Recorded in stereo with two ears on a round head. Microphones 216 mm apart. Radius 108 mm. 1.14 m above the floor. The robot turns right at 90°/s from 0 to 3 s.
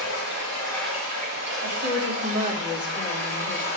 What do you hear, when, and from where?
0.0 s running water: 105° left, 5.5 m; by 3.8 s 15° left, 5.5 m
1.6 s a woman speaking: 95° right, 2.5 m; by 3.8 s 30° left, 2.5 m